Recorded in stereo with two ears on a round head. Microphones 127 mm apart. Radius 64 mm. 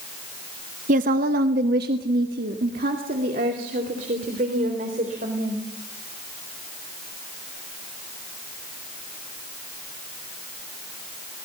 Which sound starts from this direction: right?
A woman speaking, at 0.9 s.